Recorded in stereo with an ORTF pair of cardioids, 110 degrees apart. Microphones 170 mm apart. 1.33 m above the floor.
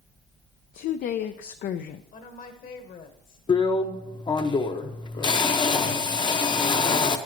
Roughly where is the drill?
Ahead left.